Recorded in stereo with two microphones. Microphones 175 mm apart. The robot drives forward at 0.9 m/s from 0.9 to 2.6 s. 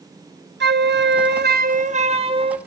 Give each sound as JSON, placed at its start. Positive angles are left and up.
{"t": 0.6, "sound": "a flute", "side_deg": -75, "distance_m": 0.7}